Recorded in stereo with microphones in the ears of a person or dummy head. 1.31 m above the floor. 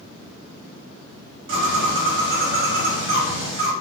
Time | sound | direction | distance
1.5 | a bird | 60° right (ahead or behind) | 0.8 m